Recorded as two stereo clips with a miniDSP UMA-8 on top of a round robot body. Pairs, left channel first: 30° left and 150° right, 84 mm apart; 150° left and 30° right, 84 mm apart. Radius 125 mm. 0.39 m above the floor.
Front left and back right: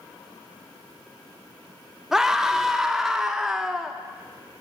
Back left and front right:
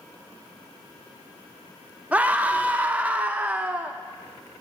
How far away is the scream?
About 1.0 m.